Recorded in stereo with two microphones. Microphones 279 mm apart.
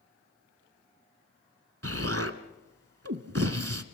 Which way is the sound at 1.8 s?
55° right (ahead or behind).